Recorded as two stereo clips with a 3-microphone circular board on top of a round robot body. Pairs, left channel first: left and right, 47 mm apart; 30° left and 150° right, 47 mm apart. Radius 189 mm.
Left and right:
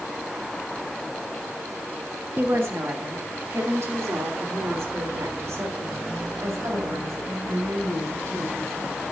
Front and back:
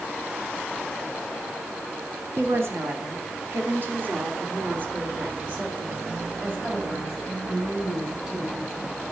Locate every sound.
2.4 s a woman speaking: 125° right, 2.5 m; by 9.0 s 80° right, 6 m